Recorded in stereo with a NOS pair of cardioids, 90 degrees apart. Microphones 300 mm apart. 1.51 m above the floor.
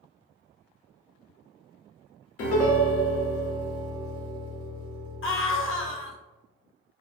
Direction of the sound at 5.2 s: 45° left.